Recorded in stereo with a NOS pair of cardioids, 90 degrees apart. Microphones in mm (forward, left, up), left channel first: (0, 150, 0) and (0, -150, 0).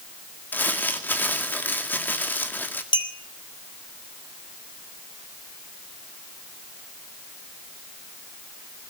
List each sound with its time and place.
0.5 s crumpling: 5° left, 2.0 m
2.9 s a clink: 15° left, 3 m